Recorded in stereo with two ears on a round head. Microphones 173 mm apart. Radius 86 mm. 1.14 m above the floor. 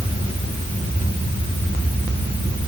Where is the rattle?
No rattle in this recording.